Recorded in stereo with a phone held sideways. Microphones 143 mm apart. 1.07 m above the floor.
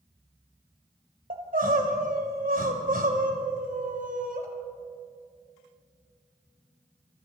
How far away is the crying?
About 3 m.